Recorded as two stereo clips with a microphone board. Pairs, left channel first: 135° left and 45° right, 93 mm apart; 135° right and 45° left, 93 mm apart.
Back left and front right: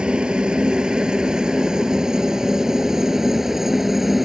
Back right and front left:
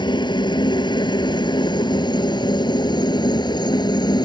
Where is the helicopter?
125° right; by 4.3 s 130° right.